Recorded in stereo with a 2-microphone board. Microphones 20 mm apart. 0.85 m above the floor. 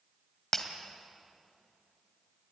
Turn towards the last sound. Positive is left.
turn(degrees=10)  # may be behind; listen again after turning